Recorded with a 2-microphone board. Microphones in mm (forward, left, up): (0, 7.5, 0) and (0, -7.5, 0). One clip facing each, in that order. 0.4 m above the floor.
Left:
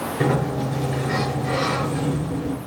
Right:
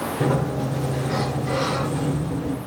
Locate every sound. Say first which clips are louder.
0.2 s a sliding door: left 2 dB; 70° left (ahead or behind), 3 m